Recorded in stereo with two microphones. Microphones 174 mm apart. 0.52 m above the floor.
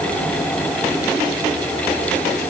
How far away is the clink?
No clink in this recording.